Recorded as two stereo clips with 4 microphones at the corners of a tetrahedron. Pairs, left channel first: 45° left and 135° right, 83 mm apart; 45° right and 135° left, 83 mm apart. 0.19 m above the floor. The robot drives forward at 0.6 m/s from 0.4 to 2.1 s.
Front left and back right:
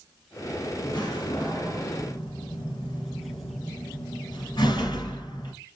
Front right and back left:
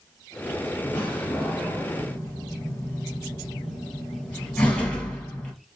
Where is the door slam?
20° left, 3 m; by 5.5 s 25° left, 2.5 m.